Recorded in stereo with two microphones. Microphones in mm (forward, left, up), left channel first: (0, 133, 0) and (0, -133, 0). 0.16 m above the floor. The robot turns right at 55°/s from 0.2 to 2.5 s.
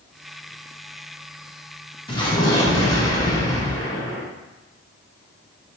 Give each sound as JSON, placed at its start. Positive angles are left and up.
{"t": 2.1, "sound": "an explosion", "side_deg": 20, "distance_m": 1.2}